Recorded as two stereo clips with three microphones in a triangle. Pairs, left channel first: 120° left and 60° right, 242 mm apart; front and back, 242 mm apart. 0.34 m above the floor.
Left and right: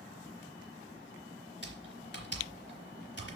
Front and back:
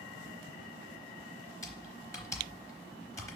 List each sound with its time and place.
1.6 s typing on a keyboard: 80° left, 4.5 m